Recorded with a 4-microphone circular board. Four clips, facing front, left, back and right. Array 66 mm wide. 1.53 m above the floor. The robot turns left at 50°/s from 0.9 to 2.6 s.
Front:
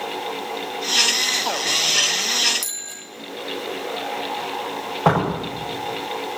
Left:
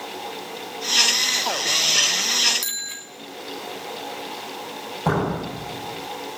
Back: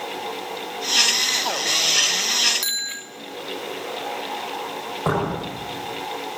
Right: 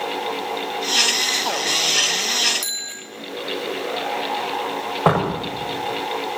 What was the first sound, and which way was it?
A bicycle bell, straight behind.